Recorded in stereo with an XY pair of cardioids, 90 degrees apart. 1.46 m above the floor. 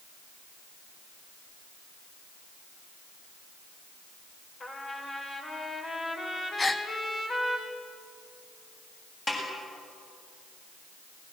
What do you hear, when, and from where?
4.6 s a trumpet: 45° left, 4 m
6.6 s a gasp: 30° left, 1.1 m
9.3 s a snare drum: 35° left, 8 m